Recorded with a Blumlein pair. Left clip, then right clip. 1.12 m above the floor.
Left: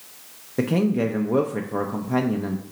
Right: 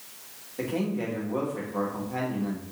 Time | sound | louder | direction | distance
0.6 | a man speaking | left 7 dB | 40° left | 0.5 m